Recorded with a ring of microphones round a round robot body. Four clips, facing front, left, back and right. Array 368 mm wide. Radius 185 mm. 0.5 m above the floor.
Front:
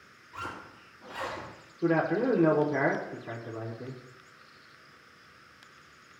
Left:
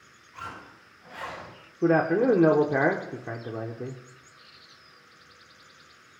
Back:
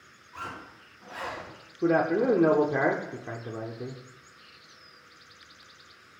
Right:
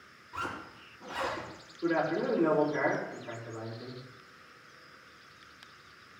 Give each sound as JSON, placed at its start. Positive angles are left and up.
{"t": 0.3, "sound": "a zipper", "azimuth_deg": -85, "distance_m": 5.0}
{"t": 1.8, "sound": "a man speaking", "azimuth_deg": 110, "distance_m": 1.0}